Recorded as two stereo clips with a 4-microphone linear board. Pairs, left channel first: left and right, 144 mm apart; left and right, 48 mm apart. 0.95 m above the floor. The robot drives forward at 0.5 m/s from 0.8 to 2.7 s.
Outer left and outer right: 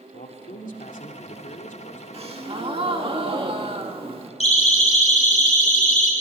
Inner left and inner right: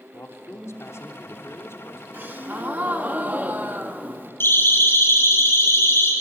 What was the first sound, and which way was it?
A man speaking, 70° left (ahead or behind).